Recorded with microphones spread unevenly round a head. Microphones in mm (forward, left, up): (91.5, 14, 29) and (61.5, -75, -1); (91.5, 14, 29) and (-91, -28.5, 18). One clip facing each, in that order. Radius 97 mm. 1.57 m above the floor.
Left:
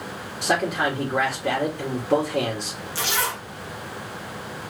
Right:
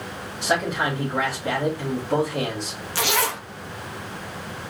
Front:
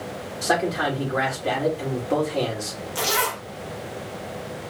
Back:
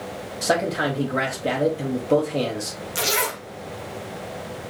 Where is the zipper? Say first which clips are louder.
Right 3 dB, even; 100° right, 0.8 m.